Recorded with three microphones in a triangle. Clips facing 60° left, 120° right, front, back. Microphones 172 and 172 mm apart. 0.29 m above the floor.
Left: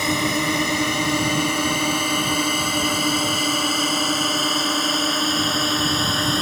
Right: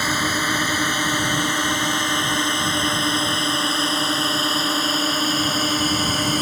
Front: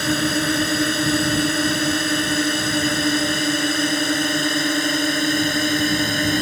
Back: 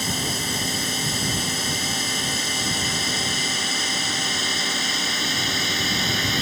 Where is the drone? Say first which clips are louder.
Left 3 dB, front 9 dB; 15° right; by 6.4 s 35° right.